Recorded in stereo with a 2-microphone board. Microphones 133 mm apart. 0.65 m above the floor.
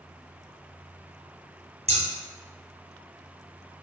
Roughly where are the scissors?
Right.